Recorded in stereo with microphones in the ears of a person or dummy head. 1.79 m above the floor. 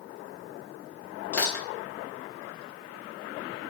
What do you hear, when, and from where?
1.3 s crushing: 5° left (ahead or behind), 1.1 m